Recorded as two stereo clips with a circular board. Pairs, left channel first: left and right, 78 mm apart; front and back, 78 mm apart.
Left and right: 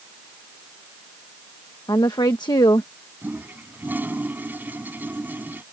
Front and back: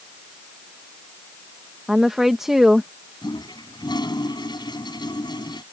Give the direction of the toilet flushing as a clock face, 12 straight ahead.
1 o'clock.